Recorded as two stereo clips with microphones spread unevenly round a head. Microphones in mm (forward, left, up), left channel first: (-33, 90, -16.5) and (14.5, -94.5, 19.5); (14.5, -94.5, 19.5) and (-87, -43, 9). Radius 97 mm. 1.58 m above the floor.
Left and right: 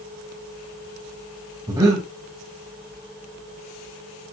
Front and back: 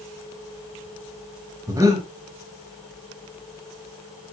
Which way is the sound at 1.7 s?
145° right.